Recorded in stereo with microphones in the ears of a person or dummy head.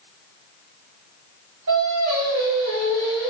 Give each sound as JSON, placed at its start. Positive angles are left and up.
{"t": 1.7, "sound": "singing", "side_deg": -65, "distance_m": 1.7}